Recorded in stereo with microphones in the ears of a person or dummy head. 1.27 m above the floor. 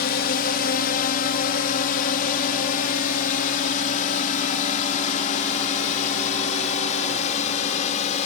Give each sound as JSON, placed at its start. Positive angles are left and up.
{"t": 0.0, "sound": "a drone", "side_deg": 50}